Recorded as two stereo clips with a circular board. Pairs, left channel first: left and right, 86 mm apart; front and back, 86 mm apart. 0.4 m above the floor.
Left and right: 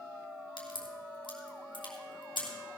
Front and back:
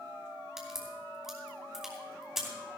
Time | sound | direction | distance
0.6 | a crack | 95° left | 3 m